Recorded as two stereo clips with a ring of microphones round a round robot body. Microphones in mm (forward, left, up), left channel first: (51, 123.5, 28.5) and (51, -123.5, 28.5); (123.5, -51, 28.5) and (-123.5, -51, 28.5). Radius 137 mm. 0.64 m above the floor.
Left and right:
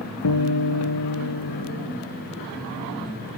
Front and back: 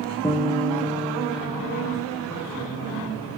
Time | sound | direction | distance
0.2 | a guitar | 80° left | 2 m